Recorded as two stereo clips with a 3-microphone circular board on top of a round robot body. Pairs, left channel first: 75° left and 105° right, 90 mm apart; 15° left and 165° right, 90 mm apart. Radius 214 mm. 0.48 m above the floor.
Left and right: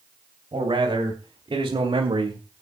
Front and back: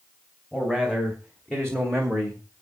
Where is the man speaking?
70° right, 4.5 m.